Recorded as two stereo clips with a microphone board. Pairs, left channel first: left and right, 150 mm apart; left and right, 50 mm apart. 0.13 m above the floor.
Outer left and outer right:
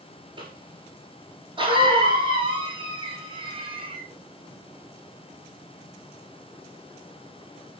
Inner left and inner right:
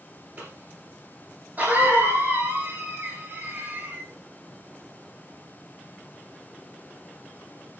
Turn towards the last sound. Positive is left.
turn(degrees=-35)  # may be behind; listen again after turning